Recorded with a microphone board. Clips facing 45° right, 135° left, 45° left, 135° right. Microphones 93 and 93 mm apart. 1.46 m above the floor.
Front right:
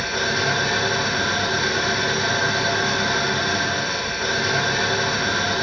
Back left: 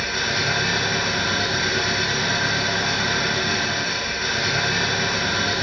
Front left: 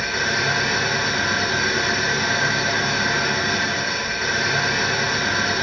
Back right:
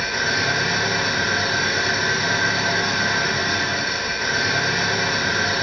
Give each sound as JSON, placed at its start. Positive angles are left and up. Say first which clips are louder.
{"t": 0.0, "sound": "an engine running", "louder": "front right 2 dB, even", "azimuth_deg": -60, "distance_m": 1.3}